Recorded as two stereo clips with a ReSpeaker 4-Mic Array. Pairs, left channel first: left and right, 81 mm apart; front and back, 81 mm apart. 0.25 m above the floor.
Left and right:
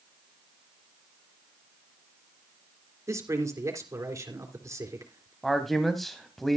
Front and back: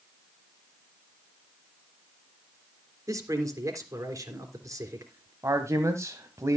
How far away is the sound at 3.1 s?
About 3.5 m.